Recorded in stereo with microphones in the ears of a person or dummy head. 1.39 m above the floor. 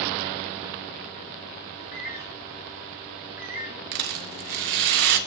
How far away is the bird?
About 1.3 m.